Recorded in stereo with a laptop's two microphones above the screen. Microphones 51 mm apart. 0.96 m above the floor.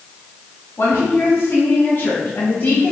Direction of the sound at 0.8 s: 65° left (ahead or behind).